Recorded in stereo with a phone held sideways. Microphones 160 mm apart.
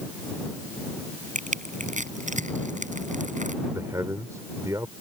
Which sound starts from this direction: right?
Crushing, at 1.4 s.